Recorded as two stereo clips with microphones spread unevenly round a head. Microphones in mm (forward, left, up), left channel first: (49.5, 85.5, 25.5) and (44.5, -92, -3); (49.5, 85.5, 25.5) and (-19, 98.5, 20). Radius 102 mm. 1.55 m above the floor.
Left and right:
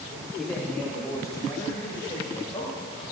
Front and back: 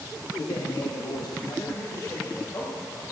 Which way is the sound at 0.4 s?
Straight ahead.